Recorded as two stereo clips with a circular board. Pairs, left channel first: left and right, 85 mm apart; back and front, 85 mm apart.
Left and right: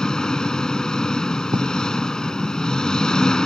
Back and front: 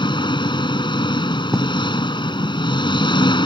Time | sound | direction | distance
0.0 | an engine running | 170° left | ?
1.5 | writing | 95° right | ?